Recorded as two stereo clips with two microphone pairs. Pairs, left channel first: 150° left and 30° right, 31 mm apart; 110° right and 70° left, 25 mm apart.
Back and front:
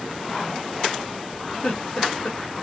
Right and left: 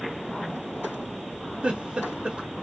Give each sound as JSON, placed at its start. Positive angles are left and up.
{"t": 1.6, "sound": "a giggle", "azimuth_deg": 105, "distance_m": 0.9}